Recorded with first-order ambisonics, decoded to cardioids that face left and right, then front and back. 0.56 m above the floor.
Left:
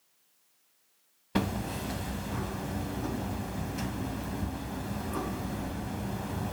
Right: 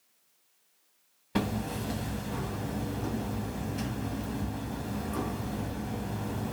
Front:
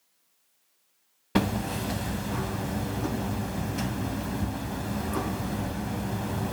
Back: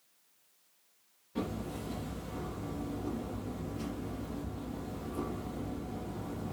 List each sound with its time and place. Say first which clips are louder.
1.4 s hammering: even, front 10 dB; 5° left, 1.2 m